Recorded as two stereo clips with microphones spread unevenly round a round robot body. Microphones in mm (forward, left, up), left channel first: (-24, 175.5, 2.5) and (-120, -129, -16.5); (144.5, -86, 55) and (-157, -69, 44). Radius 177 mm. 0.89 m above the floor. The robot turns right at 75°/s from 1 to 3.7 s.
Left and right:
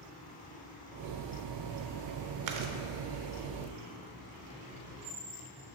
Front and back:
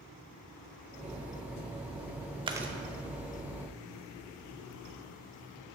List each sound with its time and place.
2.5 s chewing: 110° right, 0.7 m; by 2.7 s 90° right, 0.7 m